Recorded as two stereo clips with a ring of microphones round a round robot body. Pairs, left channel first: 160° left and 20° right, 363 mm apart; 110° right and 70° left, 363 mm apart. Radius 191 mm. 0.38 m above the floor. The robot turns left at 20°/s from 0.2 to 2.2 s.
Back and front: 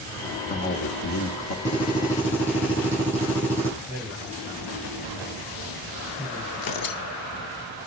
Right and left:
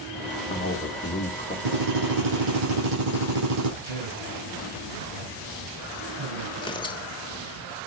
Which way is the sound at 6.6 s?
170° left.